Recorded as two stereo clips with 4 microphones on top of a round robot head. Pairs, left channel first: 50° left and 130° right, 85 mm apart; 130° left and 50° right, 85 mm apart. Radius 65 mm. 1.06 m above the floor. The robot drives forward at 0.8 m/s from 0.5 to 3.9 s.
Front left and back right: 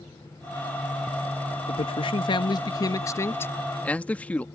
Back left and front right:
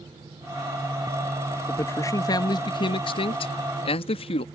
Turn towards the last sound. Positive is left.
turn(degrees=125)